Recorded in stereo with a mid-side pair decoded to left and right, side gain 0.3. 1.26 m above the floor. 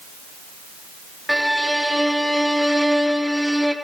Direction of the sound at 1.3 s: Straight ahead.